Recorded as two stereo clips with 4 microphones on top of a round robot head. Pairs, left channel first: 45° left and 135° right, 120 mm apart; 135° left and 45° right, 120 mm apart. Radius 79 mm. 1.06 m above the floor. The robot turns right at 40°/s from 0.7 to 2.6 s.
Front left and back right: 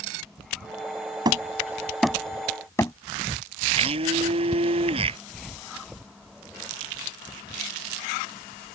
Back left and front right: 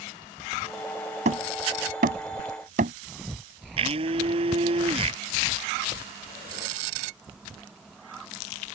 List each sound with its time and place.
1.2 s hammering: 80° right; by 2.9 s 25° right
3.8 s a blender: 90° right